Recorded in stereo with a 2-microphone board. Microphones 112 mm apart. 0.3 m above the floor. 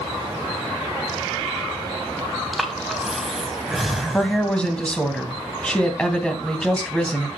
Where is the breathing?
Centre (ahead or behind), 1.8 m.